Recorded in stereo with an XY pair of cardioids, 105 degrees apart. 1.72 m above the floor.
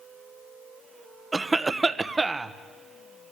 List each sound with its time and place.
1.3 s a cough: 20° right, 1.1 m